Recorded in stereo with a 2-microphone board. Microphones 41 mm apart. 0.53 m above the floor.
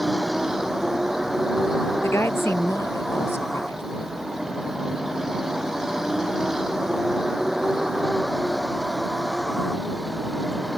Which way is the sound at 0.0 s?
10° right (ahead or behind).